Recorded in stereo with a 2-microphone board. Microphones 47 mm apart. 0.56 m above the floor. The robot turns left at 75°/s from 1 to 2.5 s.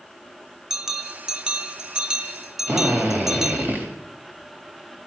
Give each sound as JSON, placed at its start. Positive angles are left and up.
{"t": 0.7, "sound": "a bell", "side_deg": -10, "distance_m": 0.8}
{"t": 2.7, "sound": "a drill", "side_deg": -45, "distance_m": 3.5}